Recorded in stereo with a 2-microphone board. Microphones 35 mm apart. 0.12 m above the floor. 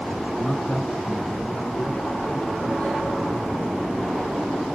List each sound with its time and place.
0.4 s a man speaking: 15° left (ahead or behind), 1.3 m; by 4.3 s 30° left (ahead or behind), 4.5 m